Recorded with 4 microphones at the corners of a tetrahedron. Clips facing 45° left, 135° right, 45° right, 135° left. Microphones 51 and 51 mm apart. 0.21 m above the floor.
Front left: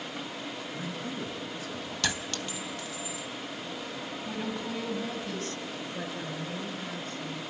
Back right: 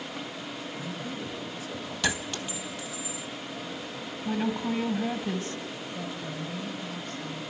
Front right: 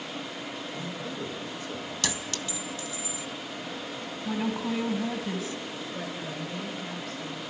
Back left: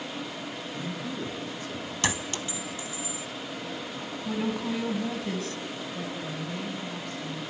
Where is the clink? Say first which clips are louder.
Back right 3 dB, back left 4 dB; 150° left, 0.6 m.